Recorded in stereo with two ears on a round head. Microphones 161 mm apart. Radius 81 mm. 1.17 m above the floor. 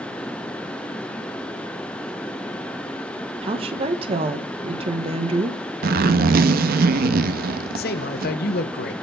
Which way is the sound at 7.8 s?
55° left (ahead or behind).